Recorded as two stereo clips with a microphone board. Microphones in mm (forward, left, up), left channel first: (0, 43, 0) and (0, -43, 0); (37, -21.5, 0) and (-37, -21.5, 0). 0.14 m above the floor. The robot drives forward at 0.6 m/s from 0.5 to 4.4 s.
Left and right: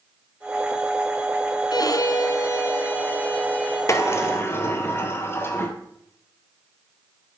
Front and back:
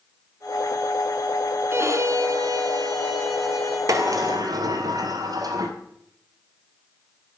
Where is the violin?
125° left, 0.7 m; by 3.8 s 160° left, 1.8 m.